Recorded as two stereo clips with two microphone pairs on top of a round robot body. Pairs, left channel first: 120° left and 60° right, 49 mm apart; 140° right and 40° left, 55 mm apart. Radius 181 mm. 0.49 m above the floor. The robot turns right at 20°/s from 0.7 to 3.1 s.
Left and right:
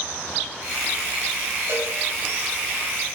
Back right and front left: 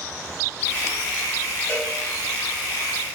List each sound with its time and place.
1.7 s a cowbell: 95° right, 4 m; by 1.9 s 90° right, 4 m